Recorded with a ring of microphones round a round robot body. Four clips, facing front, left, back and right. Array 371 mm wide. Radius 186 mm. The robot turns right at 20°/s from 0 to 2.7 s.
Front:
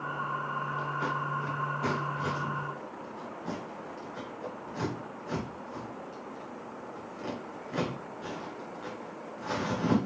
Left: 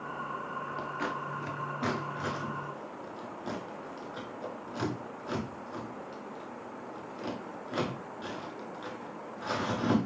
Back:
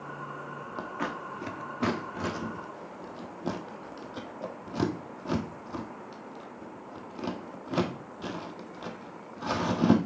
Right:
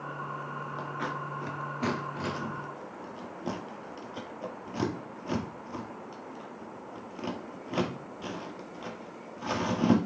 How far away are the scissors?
About 1.5 m.